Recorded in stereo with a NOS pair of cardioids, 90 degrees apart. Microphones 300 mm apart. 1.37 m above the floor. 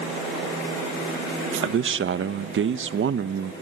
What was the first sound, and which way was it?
A man speaking, 45° right.